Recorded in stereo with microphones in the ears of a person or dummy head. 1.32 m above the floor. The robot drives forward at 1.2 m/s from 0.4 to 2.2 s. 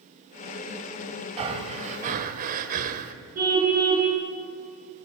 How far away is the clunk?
No clunk in this recording.